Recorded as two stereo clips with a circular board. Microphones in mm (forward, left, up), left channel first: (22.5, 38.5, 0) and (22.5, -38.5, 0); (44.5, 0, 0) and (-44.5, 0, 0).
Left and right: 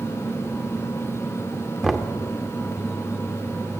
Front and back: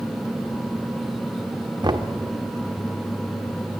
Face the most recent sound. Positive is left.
turn(degrees=180)